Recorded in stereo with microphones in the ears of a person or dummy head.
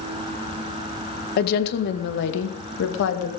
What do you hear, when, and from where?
1.4 s a woman speaking: 55° left (ahead or behind), 1.6 m; by 3.3 s 80° left, 2.5 m